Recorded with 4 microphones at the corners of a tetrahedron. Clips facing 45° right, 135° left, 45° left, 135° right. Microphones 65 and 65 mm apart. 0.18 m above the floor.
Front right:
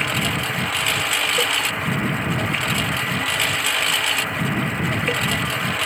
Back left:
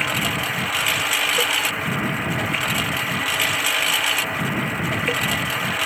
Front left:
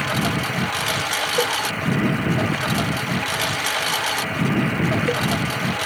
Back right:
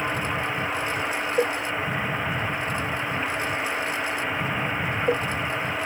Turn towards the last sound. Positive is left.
turn(degrees=50)